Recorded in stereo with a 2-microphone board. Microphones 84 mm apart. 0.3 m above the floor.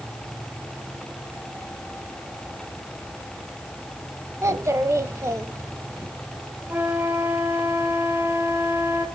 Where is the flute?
25° right (ahead or behind), 2 m.